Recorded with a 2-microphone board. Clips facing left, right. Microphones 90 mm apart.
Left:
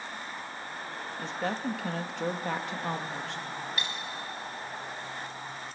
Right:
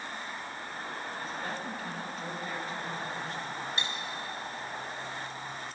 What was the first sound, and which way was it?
A woman speaking, 70° left (ahead or behind).